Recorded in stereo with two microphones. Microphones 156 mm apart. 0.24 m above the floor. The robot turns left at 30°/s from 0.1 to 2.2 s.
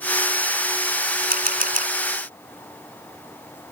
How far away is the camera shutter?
About 2.5 m.